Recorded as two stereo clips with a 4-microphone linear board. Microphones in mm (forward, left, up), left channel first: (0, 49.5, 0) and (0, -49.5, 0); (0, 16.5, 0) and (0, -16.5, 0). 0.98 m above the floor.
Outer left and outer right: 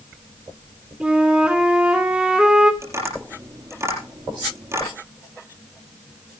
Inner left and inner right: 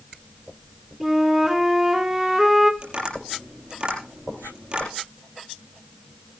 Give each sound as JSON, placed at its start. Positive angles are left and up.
{"t": 1.0, "sound": "a flute", "side_deg": -10, "distance_m": 2.5}
{"t": 2.8, "sound": "tapping", "side_deg": -30, "distance_m": 6.0}